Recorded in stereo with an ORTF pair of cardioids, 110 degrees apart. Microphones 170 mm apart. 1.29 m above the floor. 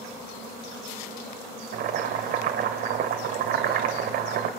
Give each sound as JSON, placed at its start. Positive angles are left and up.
{"t": 1.7, "sound": "boiling", "azimuth_deg": -65, "distance_m": 2.5}